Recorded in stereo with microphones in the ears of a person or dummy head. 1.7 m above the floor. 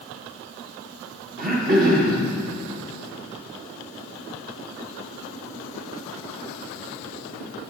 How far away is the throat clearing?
About 1.3 m.